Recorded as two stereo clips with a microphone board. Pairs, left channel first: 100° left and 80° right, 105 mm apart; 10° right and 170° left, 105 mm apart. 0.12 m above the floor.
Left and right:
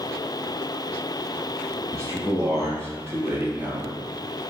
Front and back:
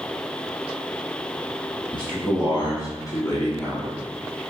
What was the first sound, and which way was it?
A man speaking, 30° right.